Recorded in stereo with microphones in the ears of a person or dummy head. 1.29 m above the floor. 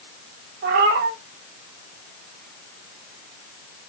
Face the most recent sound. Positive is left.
turn(degrees=-35)  # may be behind; listen again after turning